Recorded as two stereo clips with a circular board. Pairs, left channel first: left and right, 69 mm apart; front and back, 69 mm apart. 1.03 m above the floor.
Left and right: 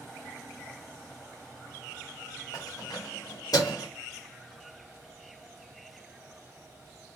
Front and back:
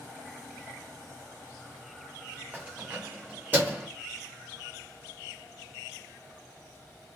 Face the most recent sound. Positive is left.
turn(degrees=115)